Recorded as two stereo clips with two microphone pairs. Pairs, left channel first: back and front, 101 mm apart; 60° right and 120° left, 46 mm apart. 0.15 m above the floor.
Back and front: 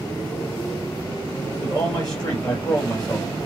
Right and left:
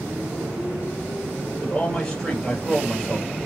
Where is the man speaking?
135° right, 3.5 m.